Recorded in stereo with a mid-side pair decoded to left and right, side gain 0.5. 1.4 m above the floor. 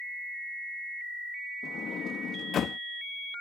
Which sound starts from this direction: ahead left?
A sliding door, at 1.6 s.